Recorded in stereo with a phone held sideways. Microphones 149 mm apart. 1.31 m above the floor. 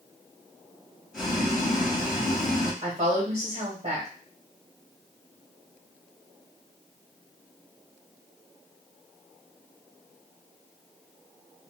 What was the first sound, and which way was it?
Boiling, 5° right (ahead or behind).